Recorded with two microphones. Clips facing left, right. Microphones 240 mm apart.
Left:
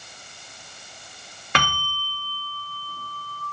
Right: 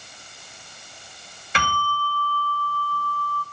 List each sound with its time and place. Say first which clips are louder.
1.6 s a bell: right 1 dB; 65° left (ahead or behind), 2.5 m